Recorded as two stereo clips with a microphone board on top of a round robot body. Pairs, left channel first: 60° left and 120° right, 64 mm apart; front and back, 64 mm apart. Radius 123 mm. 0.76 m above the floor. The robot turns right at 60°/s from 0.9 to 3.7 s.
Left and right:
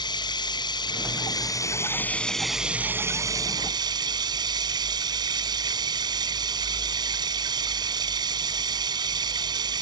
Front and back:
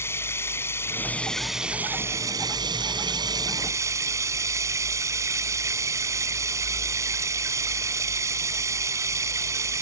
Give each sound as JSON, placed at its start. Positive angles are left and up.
{"t": 0.0, "sound": "running water", "azimuth_deg": 55}